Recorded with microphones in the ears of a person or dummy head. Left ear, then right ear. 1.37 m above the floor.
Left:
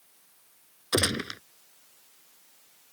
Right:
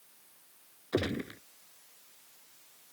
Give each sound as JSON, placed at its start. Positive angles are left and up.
{"t": 0.9, "sound": "a gunshot", "side_deg": 70}